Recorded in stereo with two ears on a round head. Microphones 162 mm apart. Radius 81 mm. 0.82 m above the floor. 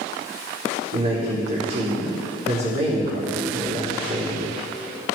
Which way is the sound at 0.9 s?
35° right (ahead or behind).